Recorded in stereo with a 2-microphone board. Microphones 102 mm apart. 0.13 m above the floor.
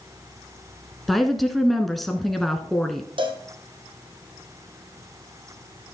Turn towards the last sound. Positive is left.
turn(degrees=-55)  # may be behind; listen again after turning